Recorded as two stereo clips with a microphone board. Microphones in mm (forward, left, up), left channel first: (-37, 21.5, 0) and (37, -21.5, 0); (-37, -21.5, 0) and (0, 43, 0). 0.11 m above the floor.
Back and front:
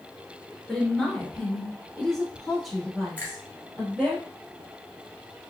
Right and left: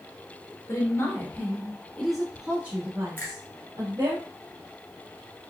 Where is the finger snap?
165° right, 1.5 m.